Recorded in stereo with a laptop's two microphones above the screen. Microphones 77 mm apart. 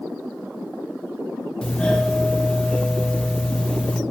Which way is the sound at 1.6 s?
10° left (ahead or behind).